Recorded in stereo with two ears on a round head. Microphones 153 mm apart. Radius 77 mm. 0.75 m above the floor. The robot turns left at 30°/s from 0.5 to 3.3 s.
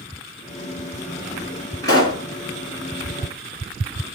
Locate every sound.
1.8 s a pop: 20° left (ahead or behind), 1.6 m; by 2.2 s 30° left (ahead or behind), 1.6 m